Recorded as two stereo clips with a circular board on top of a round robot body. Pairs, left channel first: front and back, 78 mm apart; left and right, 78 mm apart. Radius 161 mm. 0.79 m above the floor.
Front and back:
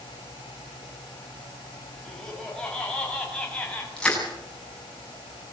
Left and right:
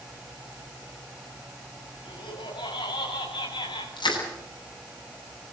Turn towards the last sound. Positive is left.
turn(degrees=80)